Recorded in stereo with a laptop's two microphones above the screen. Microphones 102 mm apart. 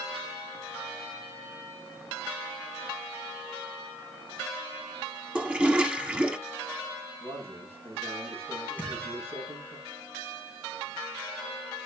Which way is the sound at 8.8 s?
15° right (ahead or behind).